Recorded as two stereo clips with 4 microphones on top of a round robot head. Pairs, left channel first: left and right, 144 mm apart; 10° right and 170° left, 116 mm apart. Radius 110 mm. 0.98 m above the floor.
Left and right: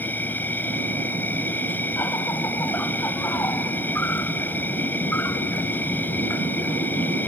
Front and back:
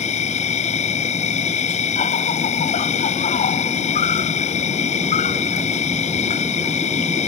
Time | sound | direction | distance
0.0 | an insect | 10° left | ?